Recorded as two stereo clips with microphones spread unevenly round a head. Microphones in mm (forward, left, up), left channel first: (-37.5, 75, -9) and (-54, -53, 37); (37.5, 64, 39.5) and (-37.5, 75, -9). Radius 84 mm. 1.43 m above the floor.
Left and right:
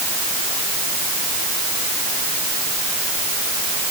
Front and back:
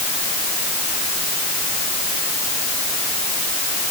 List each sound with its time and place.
Only background noise.